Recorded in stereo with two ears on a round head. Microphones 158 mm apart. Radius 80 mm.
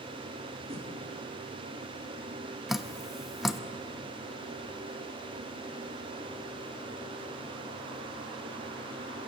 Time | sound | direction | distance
0.7 | a whoosh | 35° right (ahead or behind) | 2.5 m
2.7 | dripping | centre (ahead or behind) | 0.8 m